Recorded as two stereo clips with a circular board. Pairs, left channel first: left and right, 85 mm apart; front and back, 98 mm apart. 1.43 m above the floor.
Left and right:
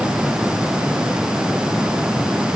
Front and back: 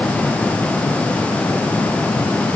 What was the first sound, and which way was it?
Only background noise.